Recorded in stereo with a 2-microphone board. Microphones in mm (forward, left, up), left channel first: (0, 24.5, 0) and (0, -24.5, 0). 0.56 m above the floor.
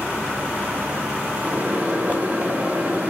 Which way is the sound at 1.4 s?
35° right (ahead or behind).